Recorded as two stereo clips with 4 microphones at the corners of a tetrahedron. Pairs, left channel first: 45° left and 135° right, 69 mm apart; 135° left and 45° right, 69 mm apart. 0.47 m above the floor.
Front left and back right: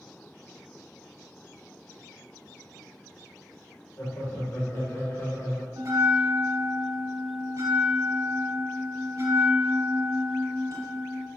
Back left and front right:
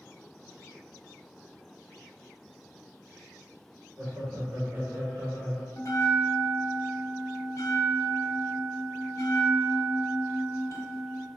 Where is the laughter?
Straight ahead, 1.4 m; by 5.7 s 40° left, 0.8 m.